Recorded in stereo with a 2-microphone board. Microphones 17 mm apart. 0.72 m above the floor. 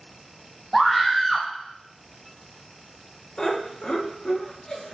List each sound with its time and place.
0.7 s a scream: 10° left (ahead or behind), 0.8 m
3.4 s laughter: 50° left (ahead or behind), 1.1 m